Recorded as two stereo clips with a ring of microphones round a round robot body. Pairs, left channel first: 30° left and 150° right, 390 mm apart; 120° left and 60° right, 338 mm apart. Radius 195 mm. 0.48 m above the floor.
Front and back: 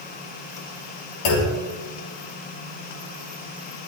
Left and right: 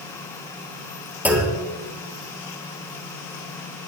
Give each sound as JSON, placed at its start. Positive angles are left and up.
{"t": 1.2, "sound": "a clunk", "azimuth_deg": 25, "distance_m": 5.0}